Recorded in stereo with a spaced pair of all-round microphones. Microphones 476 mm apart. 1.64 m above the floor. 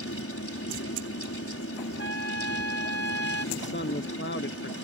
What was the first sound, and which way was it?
A fan, 30° left (ahead or behind).